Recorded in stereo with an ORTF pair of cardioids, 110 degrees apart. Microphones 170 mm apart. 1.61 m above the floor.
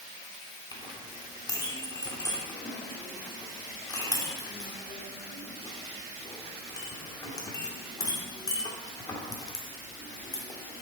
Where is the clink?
25° left, 2.5 m.